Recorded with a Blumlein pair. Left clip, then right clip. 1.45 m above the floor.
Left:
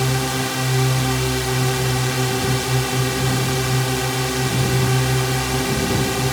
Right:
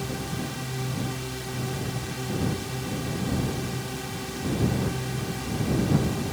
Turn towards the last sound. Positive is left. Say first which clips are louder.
# left 11 dB
turn(degrees=55)